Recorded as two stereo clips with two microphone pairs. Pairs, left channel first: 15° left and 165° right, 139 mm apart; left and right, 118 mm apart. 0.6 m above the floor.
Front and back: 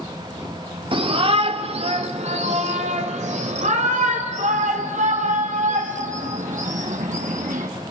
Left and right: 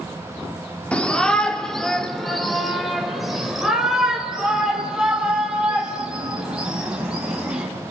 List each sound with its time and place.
0.9 s a shout: 165° left, 1.5 m; by 7.7 s 175° right, 5.5 m